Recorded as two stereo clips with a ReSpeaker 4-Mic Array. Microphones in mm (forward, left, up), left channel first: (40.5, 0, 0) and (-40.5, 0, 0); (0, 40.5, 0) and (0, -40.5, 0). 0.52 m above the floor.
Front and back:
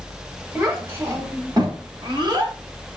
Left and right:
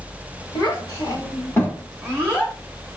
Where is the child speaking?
115° left, 1.1 m; by 2.5 s 175° right, 1.1 m.